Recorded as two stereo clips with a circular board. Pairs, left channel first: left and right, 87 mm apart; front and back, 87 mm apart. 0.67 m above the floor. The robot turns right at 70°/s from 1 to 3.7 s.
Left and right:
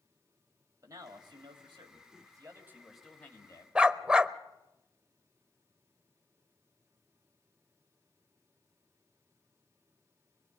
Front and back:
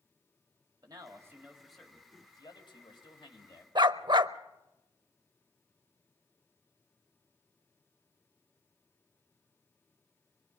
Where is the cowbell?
No cowbell in this recording.